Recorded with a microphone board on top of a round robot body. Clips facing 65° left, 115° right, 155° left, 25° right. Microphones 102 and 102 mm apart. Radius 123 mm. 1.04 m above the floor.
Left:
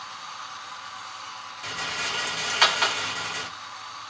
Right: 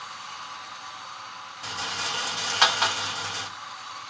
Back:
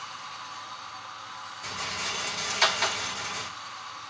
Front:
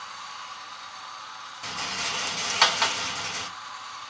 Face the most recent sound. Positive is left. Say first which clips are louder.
# even, front 2 dB
turn(degrees=-45)